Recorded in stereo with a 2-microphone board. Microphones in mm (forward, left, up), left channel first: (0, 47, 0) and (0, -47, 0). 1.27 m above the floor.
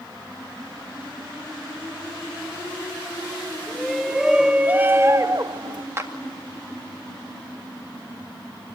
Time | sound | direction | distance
3.7 | a shout | centre (ahead or behind) | 1.4 m
6.0 | a clap | 30° right (ahead or behind) | 2 m